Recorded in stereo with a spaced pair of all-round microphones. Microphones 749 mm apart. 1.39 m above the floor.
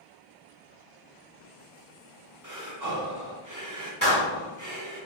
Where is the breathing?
30° right (ahead or behind), 0.6 m.